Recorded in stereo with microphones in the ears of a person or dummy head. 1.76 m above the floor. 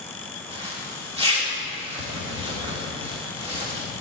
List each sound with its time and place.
0.5 s a zipper: 20° right (ahead or behind), 2 m